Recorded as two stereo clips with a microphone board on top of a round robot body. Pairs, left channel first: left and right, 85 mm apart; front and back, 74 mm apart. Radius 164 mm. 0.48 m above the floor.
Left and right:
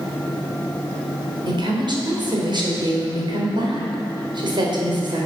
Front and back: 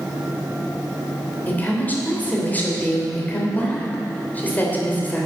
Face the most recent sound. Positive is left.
turn(degrees=-70)